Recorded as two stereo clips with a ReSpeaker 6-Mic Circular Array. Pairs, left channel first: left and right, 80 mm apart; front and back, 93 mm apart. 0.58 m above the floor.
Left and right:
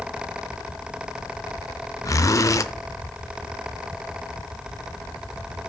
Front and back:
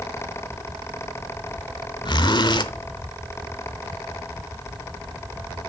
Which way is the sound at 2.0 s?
40° left.